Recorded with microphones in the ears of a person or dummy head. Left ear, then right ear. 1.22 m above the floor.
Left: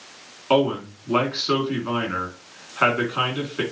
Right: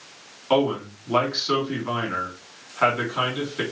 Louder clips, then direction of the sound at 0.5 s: Left 1 dB; centre (ahead or behind).